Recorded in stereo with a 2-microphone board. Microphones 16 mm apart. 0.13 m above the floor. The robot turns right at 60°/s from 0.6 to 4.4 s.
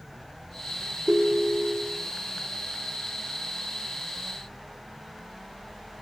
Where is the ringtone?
45° right, 1.4 m; by 2.0 s 15° left, 1.4 m.